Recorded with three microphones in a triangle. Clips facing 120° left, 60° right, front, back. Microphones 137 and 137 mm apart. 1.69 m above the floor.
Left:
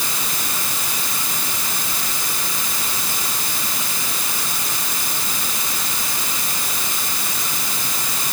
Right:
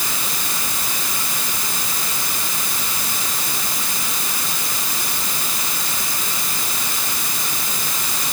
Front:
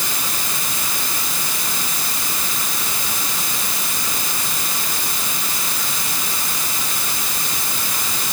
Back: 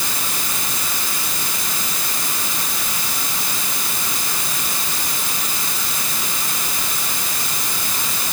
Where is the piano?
No piano in this recording.